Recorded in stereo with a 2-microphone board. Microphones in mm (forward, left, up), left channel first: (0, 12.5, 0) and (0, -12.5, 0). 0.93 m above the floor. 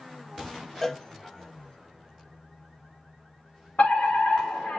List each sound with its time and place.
0.8 s a cowbell: 20° left (ahead or behind), 0.8 m
3.8 s a fire alarm: 70° left (ahead or behind), 5 m